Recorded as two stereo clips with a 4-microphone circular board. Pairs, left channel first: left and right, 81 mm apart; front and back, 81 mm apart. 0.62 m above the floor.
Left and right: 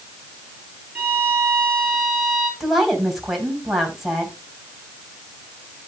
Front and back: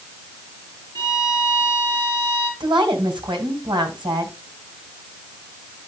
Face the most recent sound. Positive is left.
turn(degrees=180)